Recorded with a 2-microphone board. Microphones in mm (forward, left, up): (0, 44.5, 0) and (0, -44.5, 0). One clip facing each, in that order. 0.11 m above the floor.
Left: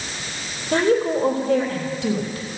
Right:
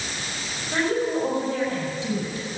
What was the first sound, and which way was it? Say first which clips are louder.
A woman speaking: left 5 dB; 65° left (ahead or behind).